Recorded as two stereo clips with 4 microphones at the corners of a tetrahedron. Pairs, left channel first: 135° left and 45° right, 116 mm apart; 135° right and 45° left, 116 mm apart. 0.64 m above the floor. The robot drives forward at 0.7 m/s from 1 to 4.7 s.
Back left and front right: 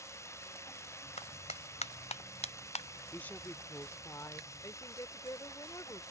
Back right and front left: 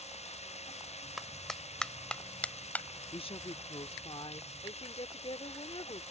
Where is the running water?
160° right.